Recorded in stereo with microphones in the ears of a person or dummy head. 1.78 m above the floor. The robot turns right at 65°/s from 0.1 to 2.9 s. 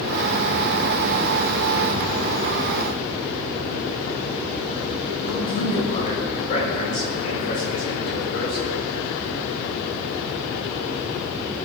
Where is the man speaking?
45° left (ahead or behind), 5.5 m.